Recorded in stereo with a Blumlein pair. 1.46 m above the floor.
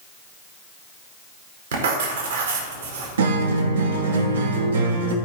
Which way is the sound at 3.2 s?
65° right.